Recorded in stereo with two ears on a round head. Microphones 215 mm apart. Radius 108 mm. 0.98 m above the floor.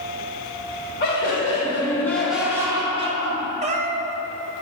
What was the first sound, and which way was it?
Laughter, 45° left (ahead or behind).